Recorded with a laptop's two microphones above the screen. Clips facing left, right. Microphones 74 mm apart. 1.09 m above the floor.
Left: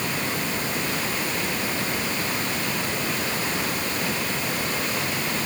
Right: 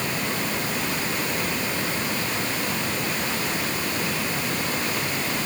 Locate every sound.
Only background noise.